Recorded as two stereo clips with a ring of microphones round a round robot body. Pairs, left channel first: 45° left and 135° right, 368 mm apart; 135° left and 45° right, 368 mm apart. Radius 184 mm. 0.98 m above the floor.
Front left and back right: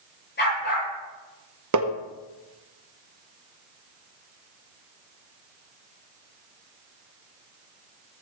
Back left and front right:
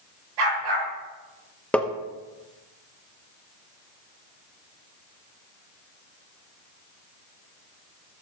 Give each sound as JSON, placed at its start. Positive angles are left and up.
{"t": 0.4, "sound": "a dog barking", "azimuth_deg": -20, "distance_m": 8.0}
{"t": 1.7, "sound": "tapping", "azimuth_deg": -140, "distance_m": 1.1}